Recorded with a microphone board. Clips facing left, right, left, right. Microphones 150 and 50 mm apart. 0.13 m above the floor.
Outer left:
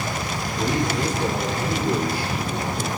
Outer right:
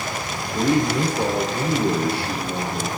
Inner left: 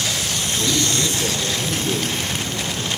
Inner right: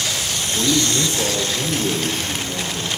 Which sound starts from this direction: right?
A man speaking, at 0.5 s.